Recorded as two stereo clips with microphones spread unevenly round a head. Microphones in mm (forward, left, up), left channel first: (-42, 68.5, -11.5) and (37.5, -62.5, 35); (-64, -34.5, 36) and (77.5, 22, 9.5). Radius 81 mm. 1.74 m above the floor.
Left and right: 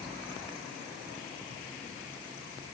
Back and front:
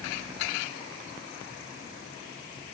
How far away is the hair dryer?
I don't hear a hair dryer.